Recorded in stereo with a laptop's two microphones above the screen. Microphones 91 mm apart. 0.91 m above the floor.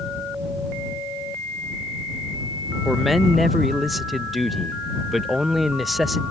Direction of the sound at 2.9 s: Centre (ahead or behind).